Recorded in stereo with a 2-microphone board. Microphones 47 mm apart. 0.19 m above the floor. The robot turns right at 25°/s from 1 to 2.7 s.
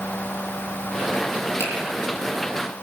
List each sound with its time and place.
1.6 s a finger snap: 70° left (ahead or behind), 7 m; by 1.7 s 75° left (ahead or behind), 7 m